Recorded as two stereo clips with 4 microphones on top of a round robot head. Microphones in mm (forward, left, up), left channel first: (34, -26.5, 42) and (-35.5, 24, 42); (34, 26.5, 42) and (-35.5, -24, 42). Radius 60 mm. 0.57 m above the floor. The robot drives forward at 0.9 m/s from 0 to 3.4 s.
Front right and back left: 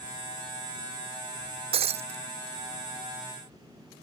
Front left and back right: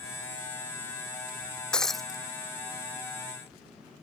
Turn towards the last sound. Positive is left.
turn(degrees=145)